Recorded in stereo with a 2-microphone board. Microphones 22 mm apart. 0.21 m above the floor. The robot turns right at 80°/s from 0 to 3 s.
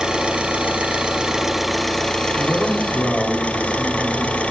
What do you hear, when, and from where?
0.0 s an engine running: 140° right, 2.5 m; by 4.5 s 100° left, 2.5 m
2.4 s a man speaking: 10° left, 8 m; by 4.4 s 60° left, 8 m